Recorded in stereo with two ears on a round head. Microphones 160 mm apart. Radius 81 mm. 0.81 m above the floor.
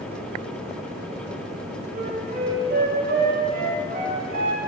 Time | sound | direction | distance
1.9 | a flute | 60° right (ahead or behind) | 6 m